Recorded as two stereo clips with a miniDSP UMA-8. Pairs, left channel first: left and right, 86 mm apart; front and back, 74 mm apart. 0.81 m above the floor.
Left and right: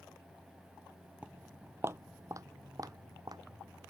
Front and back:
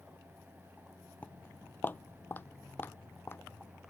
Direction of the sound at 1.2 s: 30° right.